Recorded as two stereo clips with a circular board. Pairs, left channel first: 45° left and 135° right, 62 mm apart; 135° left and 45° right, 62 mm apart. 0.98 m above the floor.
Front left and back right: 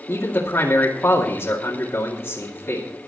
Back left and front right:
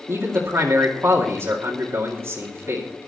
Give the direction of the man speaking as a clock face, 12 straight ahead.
12 o'clock.